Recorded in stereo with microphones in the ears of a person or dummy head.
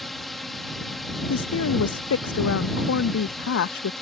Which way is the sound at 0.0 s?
Centre (ahead or behind).